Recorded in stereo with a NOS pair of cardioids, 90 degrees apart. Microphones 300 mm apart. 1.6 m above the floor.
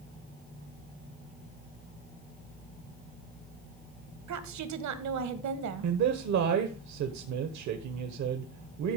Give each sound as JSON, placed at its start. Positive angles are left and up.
{"t": 4.3, "sound": "a woman speaking", "azimuth_deg": -70, "distance_m": 1.5}
{"t": 5.8, "sound": "a man speaking", "azimuth_deg": -70, "distance_m": 1.2}